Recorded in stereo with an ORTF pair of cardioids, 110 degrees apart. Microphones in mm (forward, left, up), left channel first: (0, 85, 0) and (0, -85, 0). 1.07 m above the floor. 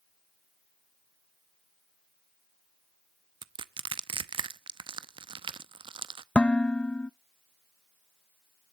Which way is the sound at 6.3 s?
5° left.